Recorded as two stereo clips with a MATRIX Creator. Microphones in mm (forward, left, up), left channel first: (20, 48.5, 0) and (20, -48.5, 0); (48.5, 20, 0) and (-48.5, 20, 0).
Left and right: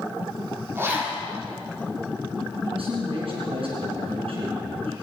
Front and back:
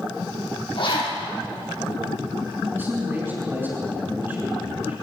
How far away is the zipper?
About 9.5 m.